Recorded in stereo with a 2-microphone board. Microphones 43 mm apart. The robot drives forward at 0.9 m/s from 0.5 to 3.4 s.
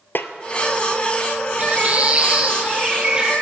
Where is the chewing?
I don't hear chewing.